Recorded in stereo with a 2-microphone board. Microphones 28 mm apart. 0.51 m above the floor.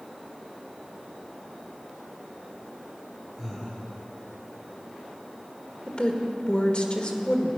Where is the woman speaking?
40° left (ahead or behind), 1.9 m.